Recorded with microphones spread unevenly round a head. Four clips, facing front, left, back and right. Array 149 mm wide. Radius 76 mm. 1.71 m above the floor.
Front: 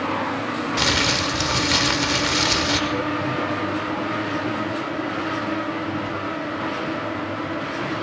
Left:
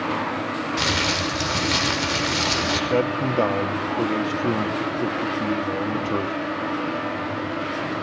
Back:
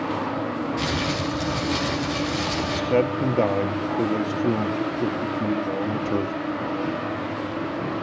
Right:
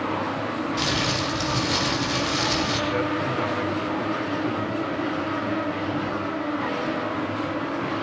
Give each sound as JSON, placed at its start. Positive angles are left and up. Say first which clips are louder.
{"t": 0.8, "sound": "crumpling", "louder": "left 1 dB, front 3 dB", "azimuth_deg": 20, "distance_m": 6.0}
{"t": 2.9, "sound": "a man speaking", "louder": "left 3 dB, back 3 dB", "azimuth_deg": 140, "distance_m": 2.0}